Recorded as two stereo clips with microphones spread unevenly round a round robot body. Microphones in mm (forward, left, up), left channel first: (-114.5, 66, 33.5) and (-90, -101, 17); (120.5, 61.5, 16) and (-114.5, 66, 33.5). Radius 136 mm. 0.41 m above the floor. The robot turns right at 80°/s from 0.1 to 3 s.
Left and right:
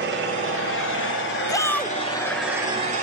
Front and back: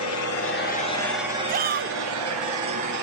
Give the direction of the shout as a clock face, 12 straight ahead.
7 o'clock.